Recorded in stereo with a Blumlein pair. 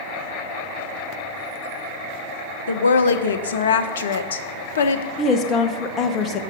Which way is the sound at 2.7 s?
65° left.